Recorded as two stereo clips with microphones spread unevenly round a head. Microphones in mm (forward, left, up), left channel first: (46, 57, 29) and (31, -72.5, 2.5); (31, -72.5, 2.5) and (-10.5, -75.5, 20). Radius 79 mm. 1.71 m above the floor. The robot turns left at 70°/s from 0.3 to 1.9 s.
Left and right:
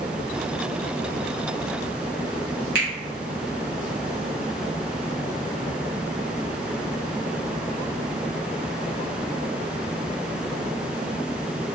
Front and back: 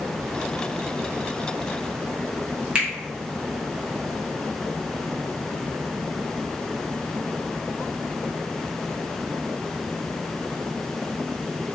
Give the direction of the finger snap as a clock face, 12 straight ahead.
4 o'clock.